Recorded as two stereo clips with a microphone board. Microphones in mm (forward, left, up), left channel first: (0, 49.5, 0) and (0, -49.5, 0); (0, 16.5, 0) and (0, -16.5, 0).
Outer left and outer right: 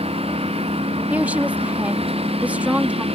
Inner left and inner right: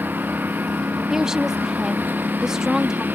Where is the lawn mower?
85° right.